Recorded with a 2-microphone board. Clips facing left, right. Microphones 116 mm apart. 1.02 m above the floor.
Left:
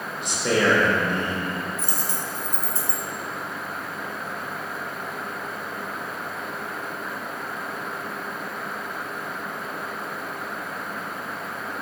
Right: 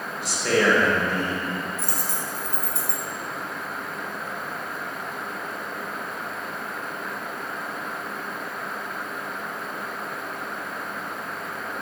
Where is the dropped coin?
65° right (ahead or behind), 1.6 m.